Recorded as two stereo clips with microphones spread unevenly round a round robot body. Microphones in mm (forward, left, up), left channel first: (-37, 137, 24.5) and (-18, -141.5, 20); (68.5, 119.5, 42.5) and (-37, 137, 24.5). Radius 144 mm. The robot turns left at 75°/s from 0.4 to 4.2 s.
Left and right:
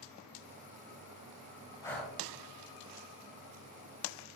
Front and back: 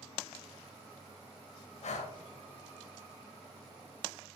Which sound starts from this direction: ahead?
Breathing, at 1.8 s.